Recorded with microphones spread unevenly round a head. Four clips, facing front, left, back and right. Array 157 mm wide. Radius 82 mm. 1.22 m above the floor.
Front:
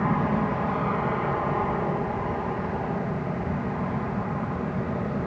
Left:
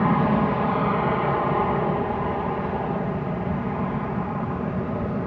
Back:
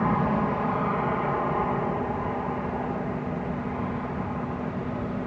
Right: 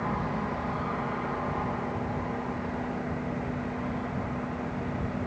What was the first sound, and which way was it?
An aircraft, 90° left.